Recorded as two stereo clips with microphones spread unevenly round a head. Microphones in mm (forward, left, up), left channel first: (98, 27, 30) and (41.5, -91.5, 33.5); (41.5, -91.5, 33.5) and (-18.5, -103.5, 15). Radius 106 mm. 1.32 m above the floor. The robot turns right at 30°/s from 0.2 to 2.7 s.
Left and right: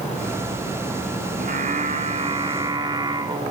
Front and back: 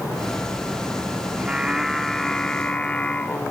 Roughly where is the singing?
Right.